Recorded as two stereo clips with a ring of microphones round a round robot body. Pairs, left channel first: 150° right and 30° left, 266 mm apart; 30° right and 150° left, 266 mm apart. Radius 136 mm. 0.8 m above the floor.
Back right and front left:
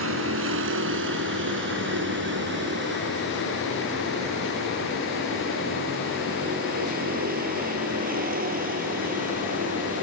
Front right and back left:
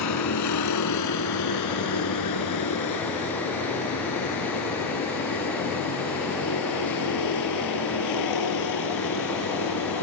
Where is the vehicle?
10° right; by 10.0 s 30° right.